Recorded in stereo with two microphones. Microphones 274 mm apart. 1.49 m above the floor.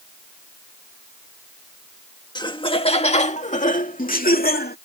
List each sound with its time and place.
2.4 s laughter: 15° left (ahead or behind); by 4.8 s 35° left (ahead or behind)